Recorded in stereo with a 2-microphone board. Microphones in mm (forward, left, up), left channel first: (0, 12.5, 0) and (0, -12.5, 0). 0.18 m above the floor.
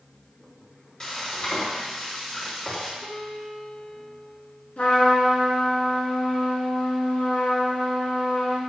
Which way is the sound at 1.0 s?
25° left (ahead or behind).